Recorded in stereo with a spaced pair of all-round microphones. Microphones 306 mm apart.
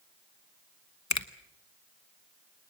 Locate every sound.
1.1 s a finger snap: 60° left (ahead or behind), 1.0 m